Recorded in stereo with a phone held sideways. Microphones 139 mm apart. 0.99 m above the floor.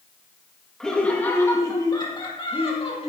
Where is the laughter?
5° left (ahead or behind), 1.6 m; by 3.1 s 50° left (ahead or behind), 2.5 m.